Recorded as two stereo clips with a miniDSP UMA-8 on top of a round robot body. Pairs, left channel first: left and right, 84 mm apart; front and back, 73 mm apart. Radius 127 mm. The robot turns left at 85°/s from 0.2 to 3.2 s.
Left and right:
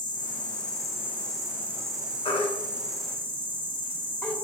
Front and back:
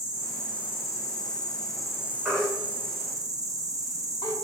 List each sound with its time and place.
0.0 s an insect: 105° left, 1.1 m; by 4.4 s 150° right, 1.1 m
2.2 s a baby crying: 100° left, 1.0 m; by 4.3 s 15° left, 1.0 m